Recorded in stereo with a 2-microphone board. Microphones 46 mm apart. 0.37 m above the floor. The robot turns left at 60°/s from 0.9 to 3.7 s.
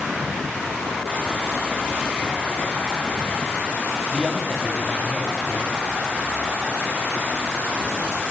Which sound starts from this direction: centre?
A man speaking, at 4.1 s.